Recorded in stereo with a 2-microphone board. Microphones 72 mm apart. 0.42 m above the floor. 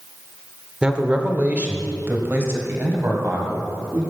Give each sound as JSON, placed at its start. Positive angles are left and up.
{"t": 0.8, "sound": "a man speaking", "side_deg": -15, "distance_m": 1.2}